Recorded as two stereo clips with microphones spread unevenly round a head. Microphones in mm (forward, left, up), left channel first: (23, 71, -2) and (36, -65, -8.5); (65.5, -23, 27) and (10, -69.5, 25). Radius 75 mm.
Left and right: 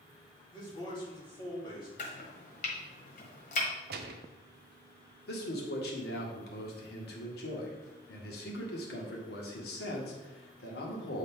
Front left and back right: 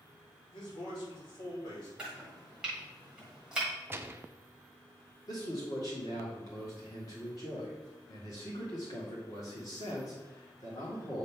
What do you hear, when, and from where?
0.5 s a man speaking: 40° left, 3 m
2.0 s chopping: 140° left, 1.3 m
3.9 s a gunshot: 80° right, 0.7 m
5.3 s a man speaking: 95° left, 1.6 m